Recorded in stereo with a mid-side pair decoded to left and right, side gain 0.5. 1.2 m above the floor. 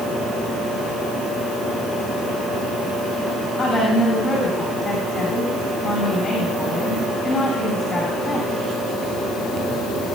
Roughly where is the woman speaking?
Ahead left.